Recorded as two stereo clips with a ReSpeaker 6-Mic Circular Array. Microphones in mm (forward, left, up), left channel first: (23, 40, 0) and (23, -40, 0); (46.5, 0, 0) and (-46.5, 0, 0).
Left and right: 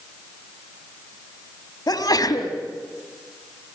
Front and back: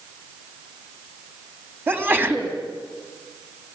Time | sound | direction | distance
1.9 | a sneeze | 115° left | 3 m